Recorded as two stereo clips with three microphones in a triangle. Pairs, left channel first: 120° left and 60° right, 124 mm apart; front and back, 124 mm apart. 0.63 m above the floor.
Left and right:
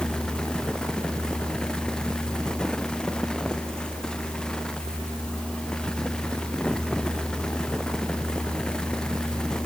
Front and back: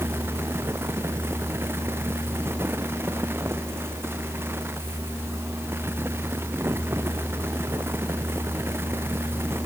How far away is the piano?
I don't hear a piano.